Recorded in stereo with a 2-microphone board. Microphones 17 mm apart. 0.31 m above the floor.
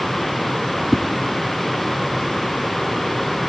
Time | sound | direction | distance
0.9 | a whoosh | centre (ahead or behind) | 0.5 m